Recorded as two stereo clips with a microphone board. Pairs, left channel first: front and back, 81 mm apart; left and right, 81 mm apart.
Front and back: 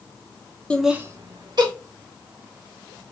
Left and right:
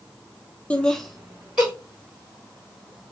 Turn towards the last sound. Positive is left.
turn(degrees=-170)